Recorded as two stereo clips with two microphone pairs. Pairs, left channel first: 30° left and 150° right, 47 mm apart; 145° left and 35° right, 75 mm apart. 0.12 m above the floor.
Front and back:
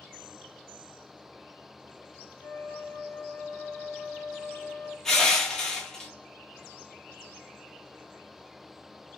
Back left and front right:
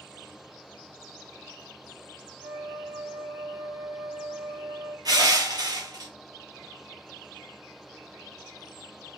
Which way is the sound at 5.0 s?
50° right.